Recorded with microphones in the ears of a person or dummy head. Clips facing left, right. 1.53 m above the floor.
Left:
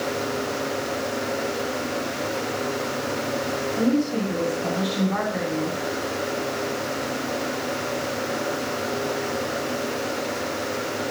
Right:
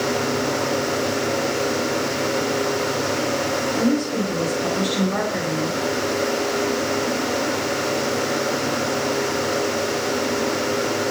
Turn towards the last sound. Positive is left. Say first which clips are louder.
# even
turn(degrees=-40)  # may be behind; listen again after turning